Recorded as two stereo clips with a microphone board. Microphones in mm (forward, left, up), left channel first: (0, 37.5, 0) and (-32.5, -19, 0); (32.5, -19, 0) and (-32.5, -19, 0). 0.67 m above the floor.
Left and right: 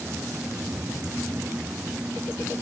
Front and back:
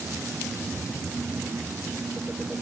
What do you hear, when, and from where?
Only background noise.